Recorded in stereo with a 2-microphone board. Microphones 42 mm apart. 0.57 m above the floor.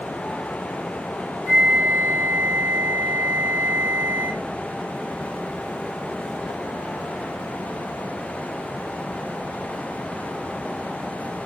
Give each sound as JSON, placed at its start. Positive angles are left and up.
{"t": 1.5, "sound": "a flute", "side_deg": 65, "distance_m": 3.0}